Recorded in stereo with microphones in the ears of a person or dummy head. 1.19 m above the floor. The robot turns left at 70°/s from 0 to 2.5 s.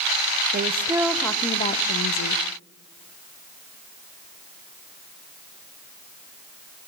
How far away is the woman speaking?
About 0.5 m.